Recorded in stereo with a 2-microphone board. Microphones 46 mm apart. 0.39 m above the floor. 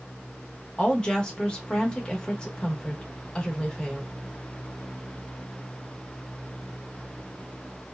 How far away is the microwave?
I don't hear a microwave.